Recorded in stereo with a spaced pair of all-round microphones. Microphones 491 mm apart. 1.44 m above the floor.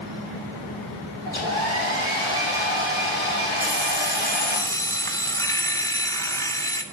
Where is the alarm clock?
5° left (ahead or behind), 1.1 m.